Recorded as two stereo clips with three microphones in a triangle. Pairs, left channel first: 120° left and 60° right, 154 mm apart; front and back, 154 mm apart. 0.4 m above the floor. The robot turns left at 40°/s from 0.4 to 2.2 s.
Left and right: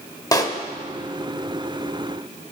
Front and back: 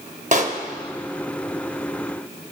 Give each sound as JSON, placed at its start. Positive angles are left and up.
{"t": 0.3, "sound": "a pop", "azimuth_deg": 175, "distance_m": 0.5}